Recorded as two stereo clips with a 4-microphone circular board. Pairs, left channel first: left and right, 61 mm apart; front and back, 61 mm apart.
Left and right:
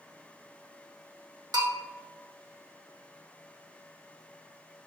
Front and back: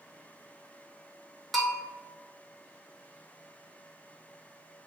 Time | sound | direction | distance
1.5 | a bell | 90° right | 0.6 m